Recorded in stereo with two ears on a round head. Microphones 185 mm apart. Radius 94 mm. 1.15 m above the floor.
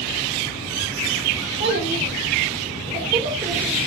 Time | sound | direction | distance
1.6 | a child speaking | 60° right (ahead or behind) | 2 m